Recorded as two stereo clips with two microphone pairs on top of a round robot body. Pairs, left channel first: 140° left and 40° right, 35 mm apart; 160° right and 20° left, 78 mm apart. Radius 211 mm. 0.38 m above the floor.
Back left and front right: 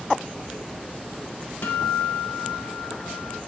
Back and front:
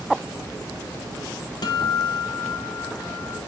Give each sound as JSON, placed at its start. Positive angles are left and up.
{"t": 1.6, "sound": "a guitar", "azimuth_deg": 170, "distance_m": 0.7}